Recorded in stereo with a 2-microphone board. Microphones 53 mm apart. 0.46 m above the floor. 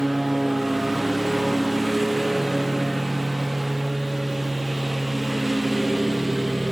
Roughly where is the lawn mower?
Centre.